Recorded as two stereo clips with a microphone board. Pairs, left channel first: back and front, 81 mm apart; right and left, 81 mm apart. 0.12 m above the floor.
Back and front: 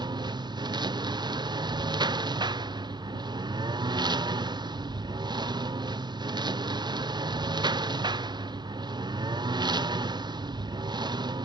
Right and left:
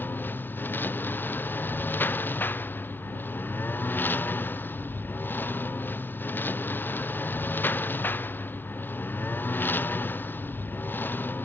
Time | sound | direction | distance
0.0 | a lawn mower | 25° right | ?